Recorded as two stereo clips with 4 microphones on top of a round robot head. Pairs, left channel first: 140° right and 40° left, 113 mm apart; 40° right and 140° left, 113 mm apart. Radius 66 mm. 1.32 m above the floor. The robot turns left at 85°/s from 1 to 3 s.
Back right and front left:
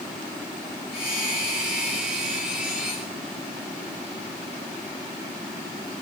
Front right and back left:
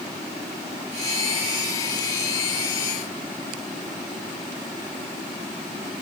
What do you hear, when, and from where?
Only background noise.